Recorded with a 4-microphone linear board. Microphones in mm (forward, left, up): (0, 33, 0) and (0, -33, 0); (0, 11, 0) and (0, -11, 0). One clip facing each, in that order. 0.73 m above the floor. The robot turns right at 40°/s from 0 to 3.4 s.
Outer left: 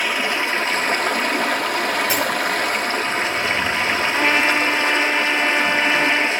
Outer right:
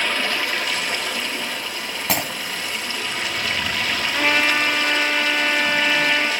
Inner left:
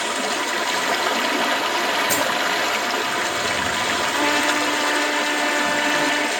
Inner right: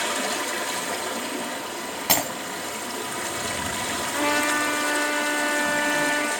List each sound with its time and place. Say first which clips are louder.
0.0 s running water: outer left 2 dB, inner left 3 dB; 10° left, 1.4 m; by 6.4 s 150° left, 1.4 m
2.1 s breaking glass: outer left 4 dB, inner left 3 dB; 65° right (ahead or behind), 3 m; by 2.3 s 60° right (ahead or behind), 3 m
4.1 s a trumpet: even, inner left 1 dB; 5° left (ahead or behind), 4.5 m